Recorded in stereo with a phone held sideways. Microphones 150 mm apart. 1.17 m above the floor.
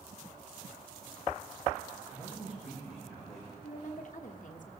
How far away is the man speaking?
About 6 m.